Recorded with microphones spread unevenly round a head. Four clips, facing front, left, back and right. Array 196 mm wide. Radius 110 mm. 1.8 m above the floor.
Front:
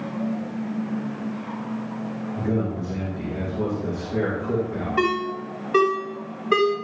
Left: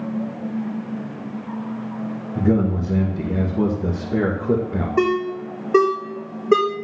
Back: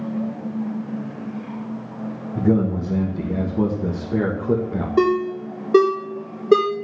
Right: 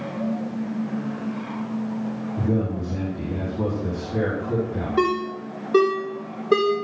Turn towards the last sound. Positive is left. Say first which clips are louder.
# left 2 dB, back 6 dB
turn(degrees=170)